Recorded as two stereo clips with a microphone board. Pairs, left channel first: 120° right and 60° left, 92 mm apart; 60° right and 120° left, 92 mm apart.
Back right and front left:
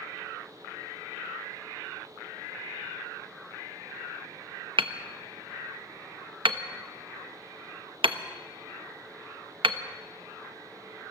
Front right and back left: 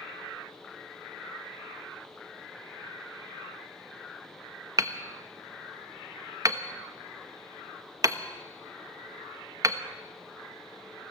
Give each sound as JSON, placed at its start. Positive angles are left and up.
{"t": 4.8, "sound": "hammering", "azimuth_deg": 70, "distance_m": 1.1}